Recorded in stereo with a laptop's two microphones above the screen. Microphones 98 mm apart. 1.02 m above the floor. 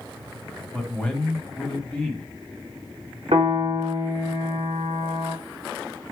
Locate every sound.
0.7 s a man speaking: 10° left (ahead or behind), 1.7 m
3.3 s a piano: 75° right (ahead or behind), 2 m